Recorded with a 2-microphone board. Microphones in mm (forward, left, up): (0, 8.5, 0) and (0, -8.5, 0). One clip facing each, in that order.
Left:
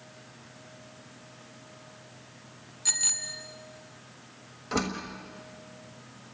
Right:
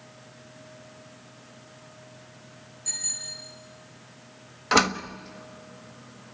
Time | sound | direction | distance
2.9 | a bicycle bell | 70° left (ahead or behind) | 2.5 m
4.7 | a door slam | 55° right (ahead or behind) | 1.4 m